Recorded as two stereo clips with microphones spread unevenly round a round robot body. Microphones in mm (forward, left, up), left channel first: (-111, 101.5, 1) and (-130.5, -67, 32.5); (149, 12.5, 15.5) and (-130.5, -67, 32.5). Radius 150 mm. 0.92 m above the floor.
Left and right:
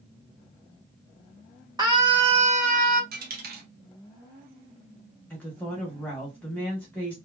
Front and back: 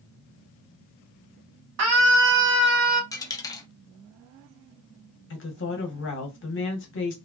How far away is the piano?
I don't hear a piano.